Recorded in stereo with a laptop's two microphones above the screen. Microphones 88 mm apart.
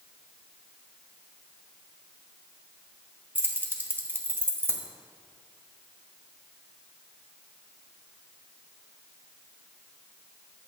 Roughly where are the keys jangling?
Right.